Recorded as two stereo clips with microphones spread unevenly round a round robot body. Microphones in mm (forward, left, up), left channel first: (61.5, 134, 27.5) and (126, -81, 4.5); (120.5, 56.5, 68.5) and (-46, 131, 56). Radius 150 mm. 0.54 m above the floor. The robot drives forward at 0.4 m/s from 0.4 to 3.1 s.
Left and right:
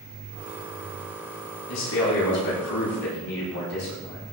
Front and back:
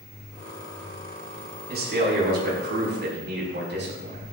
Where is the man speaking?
125° left, 4.5 m; by 4.2 s 130° left, 5 m.